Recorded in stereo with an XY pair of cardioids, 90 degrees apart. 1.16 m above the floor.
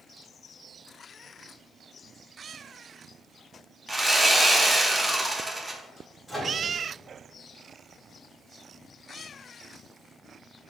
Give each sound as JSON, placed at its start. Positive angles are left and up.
{"t": 3.9, "sound": "sawing", "azimuth_deg": -15, "distance_m": 0.7}
{"t": 6.3, "sound": "a microwave", "azimuth_deg": 10, "distance_m": 1.4}